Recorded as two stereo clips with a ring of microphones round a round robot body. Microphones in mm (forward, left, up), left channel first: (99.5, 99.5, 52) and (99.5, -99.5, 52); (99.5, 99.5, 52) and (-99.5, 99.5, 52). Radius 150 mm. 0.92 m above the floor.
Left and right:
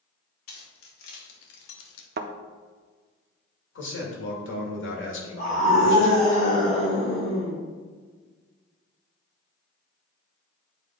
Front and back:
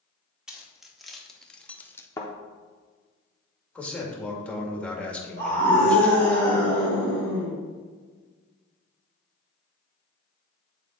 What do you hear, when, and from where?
0.5 s keys jangling: 95° left, 1.9 m; by 2.1 s 80° left, 0.9 m
2.2 s a thud: 75° right, 0.5 m
3.8 s a man speaking: 85° left, 2 m
5.4 s a scream: 160° left, 3 m